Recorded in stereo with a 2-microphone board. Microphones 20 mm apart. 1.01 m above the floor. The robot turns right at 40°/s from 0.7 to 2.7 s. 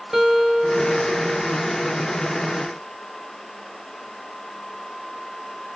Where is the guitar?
145° right, 1.8 m; by 1.8 s 105° right, 1.8 m.